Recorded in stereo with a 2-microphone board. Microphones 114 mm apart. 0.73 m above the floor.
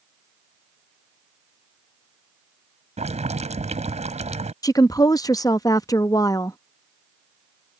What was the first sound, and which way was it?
Boiling, 85° right.